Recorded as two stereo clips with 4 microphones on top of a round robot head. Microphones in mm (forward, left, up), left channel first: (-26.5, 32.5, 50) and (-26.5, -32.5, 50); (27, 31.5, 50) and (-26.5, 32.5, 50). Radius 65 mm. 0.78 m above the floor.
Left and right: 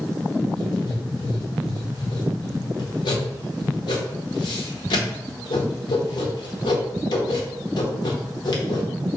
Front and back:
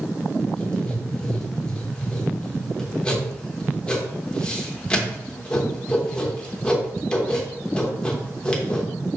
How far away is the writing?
About 1.0 m.